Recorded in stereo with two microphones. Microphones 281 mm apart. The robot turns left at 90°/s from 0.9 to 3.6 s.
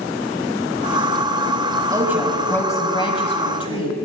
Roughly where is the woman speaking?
Centre.